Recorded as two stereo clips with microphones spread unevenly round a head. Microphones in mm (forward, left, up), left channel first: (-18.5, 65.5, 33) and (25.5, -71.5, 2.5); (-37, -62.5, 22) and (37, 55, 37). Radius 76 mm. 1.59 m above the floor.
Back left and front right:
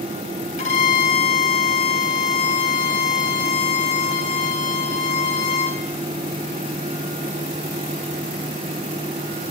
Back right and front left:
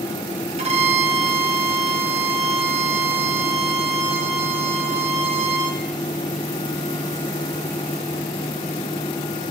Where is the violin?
90° left, 1.0 m.